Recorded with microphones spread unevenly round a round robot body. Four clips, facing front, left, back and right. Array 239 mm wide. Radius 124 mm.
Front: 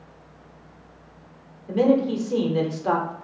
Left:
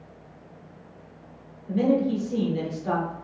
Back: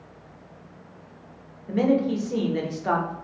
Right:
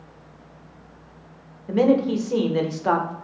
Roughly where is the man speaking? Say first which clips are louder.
Right 4 dB, front 2 dB; ahead right.